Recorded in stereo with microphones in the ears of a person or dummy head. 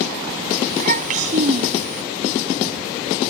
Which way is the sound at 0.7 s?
40° right (ahead or behind).